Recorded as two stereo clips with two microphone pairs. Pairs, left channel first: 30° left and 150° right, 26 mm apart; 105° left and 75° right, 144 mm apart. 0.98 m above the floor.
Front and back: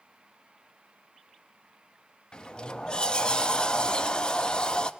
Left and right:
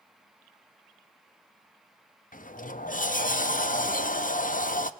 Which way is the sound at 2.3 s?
85° left.